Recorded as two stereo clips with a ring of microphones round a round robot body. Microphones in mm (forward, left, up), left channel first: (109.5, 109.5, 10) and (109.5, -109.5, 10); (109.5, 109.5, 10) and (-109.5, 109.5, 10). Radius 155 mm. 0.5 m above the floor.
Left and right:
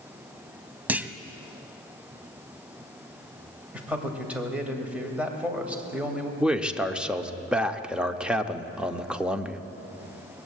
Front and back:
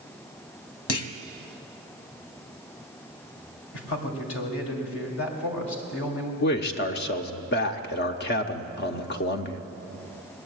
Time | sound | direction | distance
0.9 | a clunk | 5° right | 0.8 m
3.7 | a man speaking | 5° right | 2.5 m
6.4 | a man speaking | 5° right | 0.9 m